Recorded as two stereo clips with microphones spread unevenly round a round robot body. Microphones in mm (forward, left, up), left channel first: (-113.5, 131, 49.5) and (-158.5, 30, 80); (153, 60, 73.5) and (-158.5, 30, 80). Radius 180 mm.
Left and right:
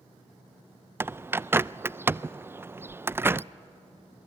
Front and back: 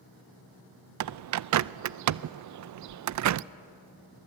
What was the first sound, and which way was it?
A bird, 160° left.